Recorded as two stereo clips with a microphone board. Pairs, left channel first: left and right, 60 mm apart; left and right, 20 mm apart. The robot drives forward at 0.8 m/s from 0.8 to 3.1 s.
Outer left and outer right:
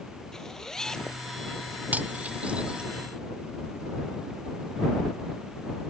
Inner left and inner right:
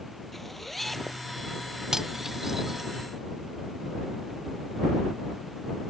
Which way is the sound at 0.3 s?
10° left (ahead or behind).